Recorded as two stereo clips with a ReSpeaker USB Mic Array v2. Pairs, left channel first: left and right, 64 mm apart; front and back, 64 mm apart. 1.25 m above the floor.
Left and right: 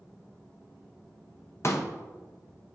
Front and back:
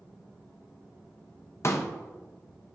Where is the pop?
45° left, 0.9 m.